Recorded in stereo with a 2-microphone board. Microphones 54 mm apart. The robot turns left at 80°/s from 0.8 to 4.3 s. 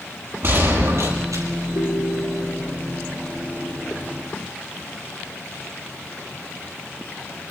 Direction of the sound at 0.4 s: 50° right.